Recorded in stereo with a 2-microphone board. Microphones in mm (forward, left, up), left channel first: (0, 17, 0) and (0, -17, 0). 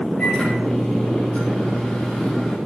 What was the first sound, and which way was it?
A microwave, 30° left (ahead or behind).